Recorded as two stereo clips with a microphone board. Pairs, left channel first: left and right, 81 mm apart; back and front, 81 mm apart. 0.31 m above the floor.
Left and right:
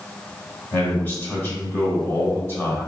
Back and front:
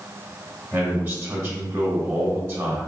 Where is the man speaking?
45° left, 1.2 m.